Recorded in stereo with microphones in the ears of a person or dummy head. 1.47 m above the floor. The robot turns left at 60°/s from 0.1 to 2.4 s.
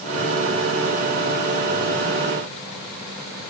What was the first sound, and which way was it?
Only background noise.